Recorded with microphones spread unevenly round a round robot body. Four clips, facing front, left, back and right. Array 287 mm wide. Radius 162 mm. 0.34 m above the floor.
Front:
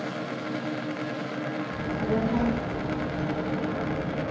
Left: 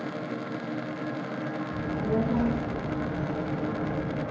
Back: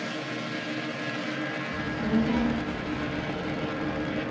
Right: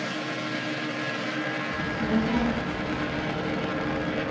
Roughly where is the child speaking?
Behind left.